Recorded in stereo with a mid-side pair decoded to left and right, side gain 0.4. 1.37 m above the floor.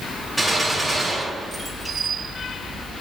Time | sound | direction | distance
0.4 | a gunshot | 20° right | 3 m